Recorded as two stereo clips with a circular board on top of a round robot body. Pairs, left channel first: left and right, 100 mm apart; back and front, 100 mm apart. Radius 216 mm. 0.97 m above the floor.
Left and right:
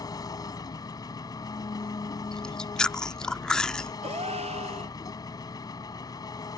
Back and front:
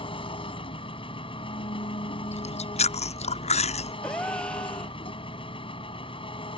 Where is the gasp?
100° right.